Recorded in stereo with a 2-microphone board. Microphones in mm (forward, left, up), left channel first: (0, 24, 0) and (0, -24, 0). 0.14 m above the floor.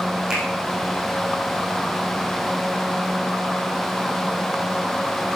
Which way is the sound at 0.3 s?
15° right (ahead or behind).